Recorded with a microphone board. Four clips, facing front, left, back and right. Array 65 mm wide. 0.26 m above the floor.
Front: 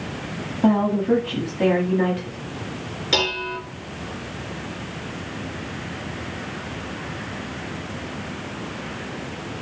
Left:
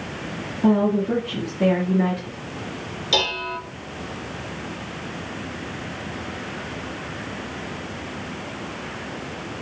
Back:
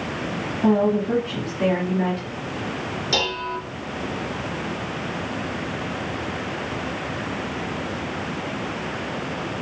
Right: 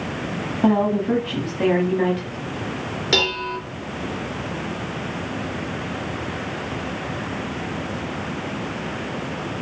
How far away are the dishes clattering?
About 3 m.